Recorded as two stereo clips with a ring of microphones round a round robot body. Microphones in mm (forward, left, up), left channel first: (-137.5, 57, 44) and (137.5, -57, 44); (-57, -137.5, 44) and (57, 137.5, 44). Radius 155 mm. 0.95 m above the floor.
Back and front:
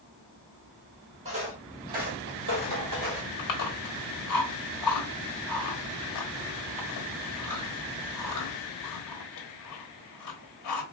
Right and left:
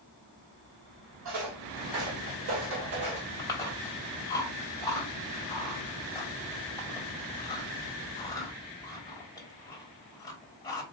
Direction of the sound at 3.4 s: 170° left.